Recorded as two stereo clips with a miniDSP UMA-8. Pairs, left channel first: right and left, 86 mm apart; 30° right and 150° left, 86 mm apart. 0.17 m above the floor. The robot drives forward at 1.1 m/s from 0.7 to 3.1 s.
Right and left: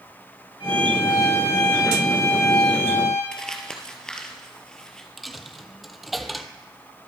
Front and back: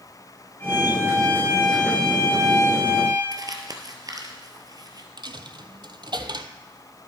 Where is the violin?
90° right, 5.5 m; by 3.2 s 120° right, 6 m.